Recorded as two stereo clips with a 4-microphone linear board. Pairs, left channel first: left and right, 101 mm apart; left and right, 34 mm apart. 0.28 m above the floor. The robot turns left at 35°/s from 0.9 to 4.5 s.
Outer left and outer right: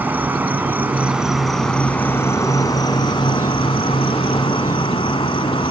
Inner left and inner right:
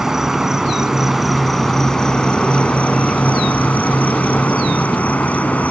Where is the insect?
160° right, 1.1 m; by 5.7 s 75° left, 1.1 m.